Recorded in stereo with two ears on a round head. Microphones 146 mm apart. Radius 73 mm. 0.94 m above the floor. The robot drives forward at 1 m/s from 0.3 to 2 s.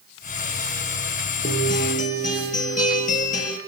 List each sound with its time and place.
1.4 s a guitar: 55° left (ahead or behind), 5.5 m; by 3.6 s 50° left (ahead or behind), 6 m